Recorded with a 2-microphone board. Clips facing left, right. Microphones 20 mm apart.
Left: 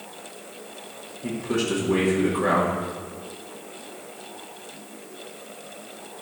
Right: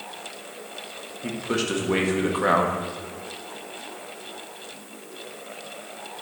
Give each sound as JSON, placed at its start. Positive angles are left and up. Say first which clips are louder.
{"t": 1.2, "sound": "a man speaking", "louder": "left 1 dB", "side_deg": -35, "distance_m": 1.3}